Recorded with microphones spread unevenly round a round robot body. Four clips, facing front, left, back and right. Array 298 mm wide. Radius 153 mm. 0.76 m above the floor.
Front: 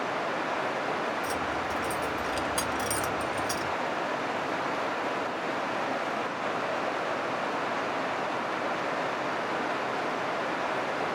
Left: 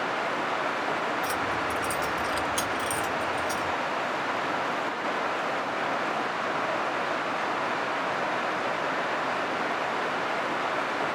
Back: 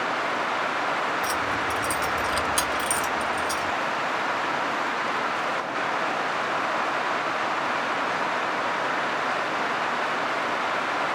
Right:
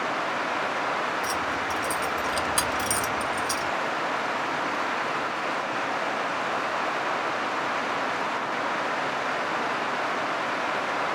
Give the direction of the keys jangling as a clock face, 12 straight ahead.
7 o'clock.